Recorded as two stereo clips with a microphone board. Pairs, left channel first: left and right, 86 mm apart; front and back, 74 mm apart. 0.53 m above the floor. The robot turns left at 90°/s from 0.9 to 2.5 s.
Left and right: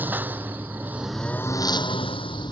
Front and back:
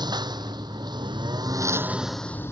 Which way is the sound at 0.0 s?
160° right.